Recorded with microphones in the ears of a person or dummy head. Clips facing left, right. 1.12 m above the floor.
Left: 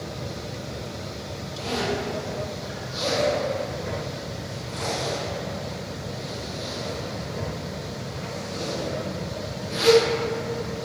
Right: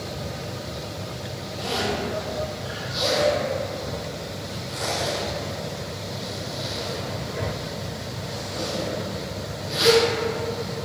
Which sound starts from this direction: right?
A zipper, at 1.6 s.